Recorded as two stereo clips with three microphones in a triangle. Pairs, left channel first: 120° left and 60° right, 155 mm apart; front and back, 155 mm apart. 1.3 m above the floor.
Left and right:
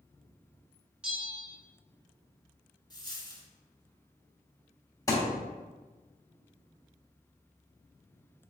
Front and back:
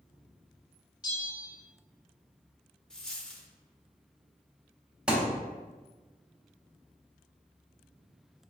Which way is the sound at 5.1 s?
105° left.